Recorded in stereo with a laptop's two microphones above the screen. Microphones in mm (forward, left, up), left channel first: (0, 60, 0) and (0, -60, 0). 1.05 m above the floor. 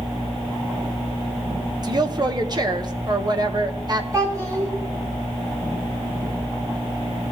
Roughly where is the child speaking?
Right.